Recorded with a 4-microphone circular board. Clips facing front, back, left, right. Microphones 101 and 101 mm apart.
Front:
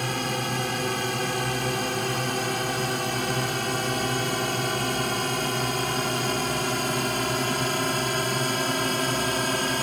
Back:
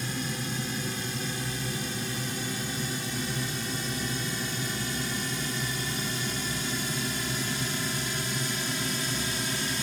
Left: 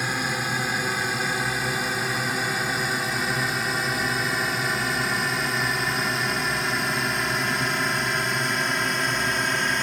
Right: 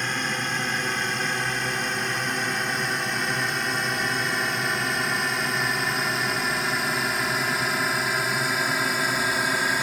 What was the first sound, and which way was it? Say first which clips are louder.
A drone: front 6 dB, left 1 dB; 5° left.